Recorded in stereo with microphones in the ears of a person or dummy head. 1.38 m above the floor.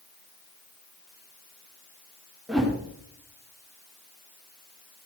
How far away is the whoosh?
About 2.5 m.